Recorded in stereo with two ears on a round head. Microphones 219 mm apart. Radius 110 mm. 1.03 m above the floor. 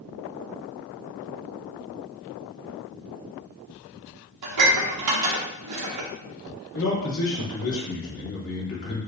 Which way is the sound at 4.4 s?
70° right (ahead or behind).